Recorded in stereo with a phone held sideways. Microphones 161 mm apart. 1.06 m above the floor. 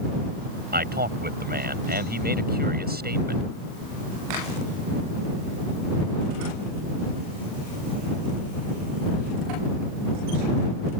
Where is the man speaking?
80° right.